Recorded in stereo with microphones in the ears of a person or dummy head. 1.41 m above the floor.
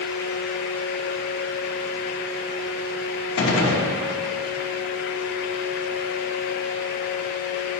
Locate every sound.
3.4 s a gunshot: 70° left (ahead or behind), 0.7 m